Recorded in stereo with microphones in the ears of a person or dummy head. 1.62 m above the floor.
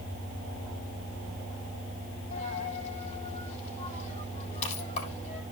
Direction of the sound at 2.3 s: 40° left (ahead or behind).